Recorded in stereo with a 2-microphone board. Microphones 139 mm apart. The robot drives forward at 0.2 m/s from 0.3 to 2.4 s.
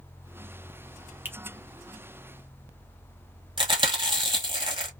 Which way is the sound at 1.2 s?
15° right (ahead or behind).